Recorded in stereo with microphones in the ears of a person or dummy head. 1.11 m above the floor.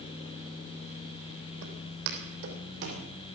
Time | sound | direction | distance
1.6 | footsteps | 65° right (ahead or behind) | 3 m